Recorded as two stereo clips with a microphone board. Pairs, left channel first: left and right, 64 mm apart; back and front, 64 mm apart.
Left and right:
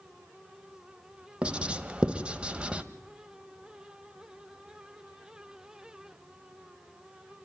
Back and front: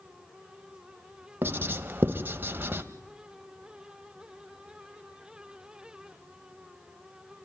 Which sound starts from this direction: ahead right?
Writing, at 1.4 s.